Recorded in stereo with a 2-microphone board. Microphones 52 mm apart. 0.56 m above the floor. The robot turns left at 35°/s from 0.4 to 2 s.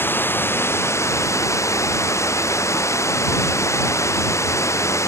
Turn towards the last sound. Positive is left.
turn(degrees=75)